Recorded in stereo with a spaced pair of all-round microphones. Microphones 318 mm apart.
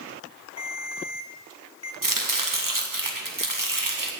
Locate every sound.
0.6 s a ringtone: 55° left (ahead or behind), 2 m
2.0 s chopping: 80° right, 2.0 m